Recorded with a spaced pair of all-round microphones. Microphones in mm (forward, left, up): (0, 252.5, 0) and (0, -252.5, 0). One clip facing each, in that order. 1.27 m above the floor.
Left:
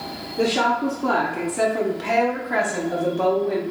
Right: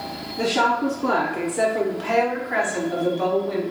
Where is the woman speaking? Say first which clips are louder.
Left 1 dB; 20° right (ahead or behind), 0.9 m; by 3.6 s 70° left (ahead or behind), 1.4 m.